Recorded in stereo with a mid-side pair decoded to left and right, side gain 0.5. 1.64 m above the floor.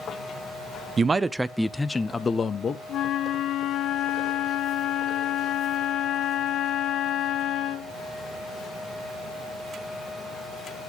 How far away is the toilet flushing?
No toilet flushing in this recording.